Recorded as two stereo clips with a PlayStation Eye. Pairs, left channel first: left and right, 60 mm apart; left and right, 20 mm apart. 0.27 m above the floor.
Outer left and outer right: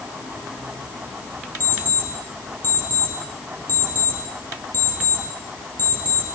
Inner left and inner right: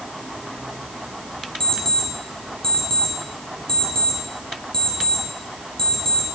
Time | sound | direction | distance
1.6 | an alarm clock | 35° left (ahead or behind) | 4.5 m